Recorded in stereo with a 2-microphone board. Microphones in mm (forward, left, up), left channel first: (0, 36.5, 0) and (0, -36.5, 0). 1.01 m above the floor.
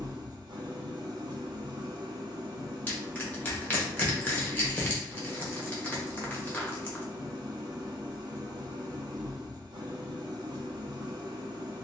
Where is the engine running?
70° right (ahead or behind), 0.8 m.